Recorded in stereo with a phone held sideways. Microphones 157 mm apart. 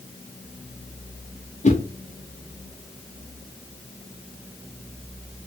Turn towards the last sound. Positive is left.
turn(degrees=50)  # may be behind; listen again after turning